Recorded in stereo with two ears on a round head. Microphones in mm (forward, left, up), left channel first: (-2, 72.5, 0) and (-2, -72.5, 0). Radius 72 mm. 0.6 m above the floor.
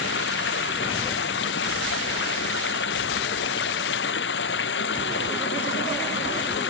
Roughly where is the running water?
Left.